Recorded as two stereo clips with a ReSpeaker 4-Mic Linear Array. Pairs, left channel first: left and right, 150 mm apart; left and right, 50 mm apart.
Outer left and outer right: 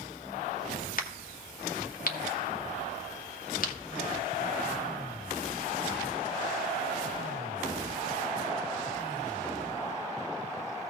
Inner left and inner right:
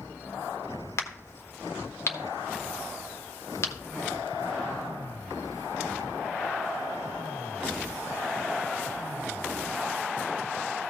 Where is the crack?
65° left (ahead or behind), 1.4 m.